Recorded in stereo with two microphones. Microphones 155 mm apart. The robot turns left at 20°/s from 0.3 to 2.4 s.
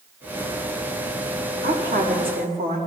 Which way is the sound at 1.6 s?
70° right (ahead or behind).